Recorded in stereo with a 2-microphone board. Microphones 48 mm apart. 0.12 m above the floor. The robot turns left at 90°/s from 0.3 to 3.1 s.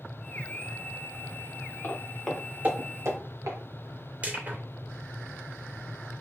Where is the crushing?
35° right (ahead or behind), 3 m.